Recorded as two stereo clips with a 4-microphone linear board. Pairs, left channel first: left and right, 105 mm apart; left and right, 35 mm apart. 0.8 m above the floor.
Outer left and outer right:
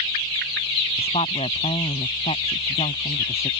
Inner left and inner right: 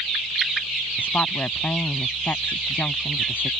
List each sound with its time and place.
1.0 s a woman speaking: 75° left (ahead or behind)